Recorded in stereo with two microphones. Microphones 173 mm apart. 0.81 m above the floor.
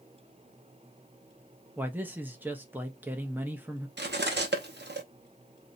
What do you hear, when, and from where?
1.8 s a man speaking: 10° right (ahead or behind), 0.6 m
4.0 s cutlery clinking: 85° right, 0.6 m